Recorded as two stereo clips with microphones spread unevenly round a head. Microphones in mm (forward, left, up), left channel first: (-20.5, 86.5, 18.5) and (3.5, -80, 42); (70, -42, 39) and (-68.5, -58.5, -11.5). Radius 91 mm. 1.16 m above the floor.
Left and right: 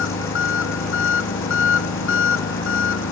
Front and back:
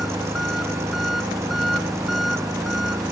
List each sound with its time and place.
0.0 s an engine running: 95° left